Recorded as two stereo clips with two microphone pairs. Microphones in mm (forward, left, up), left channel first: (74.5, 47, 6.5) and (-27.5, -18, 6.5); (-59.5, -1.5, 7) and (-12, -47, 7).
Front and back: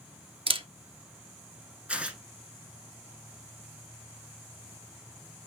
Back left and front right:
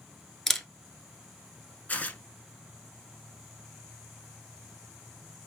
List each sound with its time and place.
0.5 s a camera shutter: 140° right, 0.5 m
1.9 s tearing paper: 140° left, 0.6 m